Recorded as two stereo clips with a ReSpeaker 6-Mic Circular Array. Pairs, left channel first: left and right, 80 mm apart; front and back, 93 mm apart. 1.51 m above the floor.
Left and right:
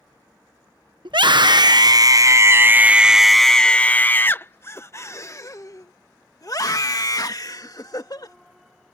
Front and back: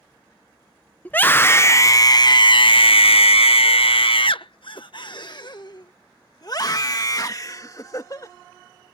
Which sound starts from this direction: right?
A scream, at 1.1 s.